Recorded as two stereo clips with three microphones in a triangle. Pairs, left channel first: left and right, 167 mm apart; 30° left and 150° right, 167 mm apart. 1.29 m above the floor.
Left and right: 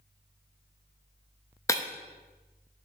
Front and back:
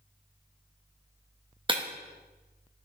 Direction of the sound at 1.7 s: 160° left.